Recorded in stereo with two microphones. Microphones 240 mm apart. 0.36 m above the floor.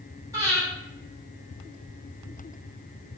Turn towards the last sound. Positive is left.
turn(degrees=-15)  # may be behind; listen again after turning